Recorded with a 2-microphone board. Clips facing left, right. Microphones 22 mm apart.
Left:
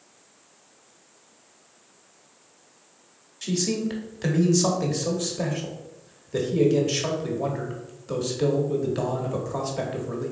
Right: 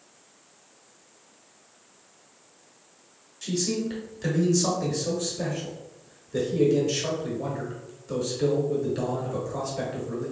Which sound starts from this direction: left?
A man speaking, at 3.4 s.